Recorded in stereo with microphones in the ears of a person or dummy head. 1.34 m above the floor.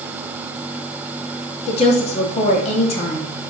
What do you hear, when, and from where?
1.7 s a woman speaking: 35° left (ahead or behind), 2.5 m